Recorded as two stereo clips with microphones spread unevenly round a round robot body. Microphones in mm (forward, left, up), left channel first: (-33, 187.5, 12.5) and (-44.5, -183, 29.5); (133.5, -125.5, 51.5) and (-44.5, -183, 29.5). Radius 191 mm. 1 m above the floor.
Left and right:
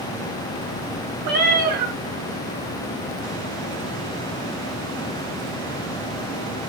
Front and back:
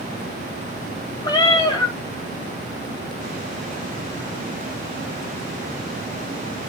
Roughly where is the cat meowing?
Ahead right.